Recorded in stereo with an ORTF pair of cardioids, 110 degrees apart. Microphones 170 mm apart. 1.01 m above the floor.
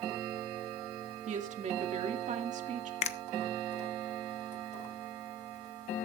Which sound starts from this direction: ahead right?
A woman speaking, at 1.3 s.